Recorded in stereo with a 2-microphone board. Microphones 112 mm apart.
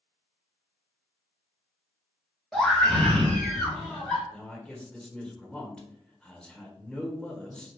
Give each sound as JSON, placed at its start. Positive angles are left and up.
{"t": 2.5, "sound": "a scream", "side_deg": 5, "distance_m": 1.3}
{"t": 4.3, "sound": "a man speaking", "side_deg": 5, "distance_m": 1.1}